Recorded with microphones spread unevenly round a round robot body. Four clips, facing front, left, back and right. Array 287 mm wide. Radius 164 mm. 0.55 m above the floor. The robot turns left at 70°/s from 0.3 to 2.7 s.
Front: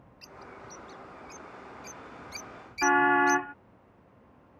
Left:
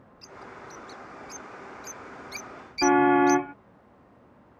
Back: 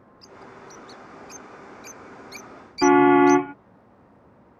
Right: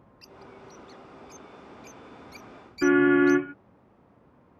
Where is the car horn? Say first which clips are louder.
Even, back 9 dB; 155° right.